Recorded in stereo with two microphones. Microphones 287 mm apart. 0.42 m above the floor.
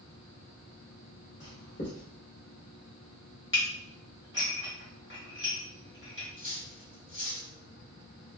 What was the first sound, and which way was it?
Writing, 40° left (ahead or behind).